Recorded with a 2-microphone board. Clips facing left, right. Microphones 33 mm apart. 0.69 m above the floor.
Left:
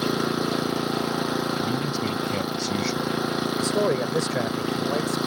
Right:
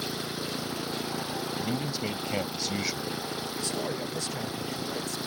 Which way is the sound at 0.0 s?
85° left.